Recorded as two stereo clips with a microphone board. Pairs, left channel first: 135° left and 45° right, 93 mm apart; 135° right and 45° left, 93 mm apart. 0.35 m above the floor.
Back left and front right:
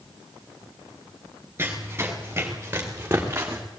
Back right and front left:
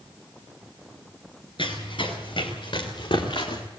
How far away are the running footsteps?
About 5 m.